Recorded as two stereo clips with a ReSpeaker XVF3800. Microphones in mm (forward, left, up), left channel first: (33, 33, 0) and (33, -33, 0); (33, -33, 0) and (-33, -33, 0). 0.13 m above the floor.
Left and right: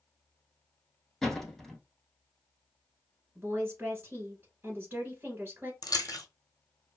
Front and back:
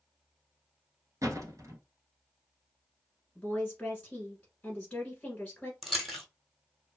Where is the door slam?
175° left, 1.2 m.